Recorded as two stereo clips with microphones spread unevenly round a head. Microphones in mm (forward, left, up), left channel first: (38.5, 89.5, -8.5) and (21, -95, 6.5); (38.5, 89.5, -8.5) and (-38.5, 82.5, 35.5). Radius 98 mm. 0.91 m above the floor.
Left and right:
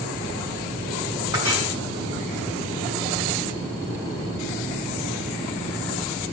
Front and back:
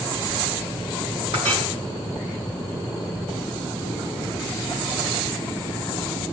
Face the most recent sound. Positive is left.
turn(degrees=-165)